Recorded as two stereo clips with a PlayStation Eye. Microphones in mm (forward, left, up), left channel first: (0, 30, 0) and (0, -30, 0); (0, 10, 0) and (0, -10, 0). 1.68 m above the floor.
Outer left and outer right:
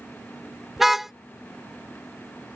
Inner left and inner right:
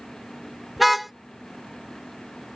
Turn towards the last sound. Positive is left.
turn(degrees=-5)  # may be behind; listen again after turning